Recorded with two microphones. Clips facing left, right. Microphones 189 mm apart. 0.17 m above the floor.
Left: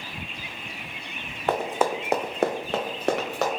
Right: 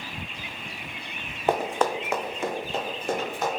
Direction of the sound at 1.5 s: 15° right (ahead or behind).